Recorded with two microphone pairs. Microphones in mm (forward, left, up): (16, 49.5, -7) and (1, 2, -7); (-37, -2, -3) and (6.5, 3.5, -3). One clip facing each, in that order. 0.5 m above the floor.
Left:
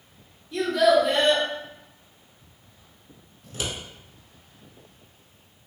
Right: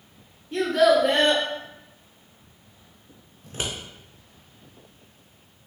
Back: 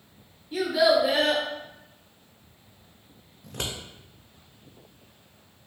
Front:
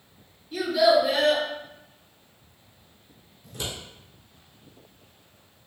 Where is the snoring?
I don't hear snoring.